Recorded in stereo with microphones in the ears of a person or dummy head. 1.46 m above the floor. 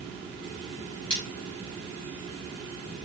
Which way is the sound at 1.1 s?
30° left (ahead or behind).